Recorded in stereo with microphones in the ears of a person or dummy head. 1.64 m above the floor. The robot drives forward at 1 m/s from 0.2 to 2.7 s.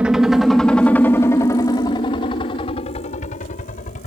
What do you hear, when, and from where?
0.0 s a helicopter: 5° right (ahead or behind); by 4.1 s 40° left (ahead or behind)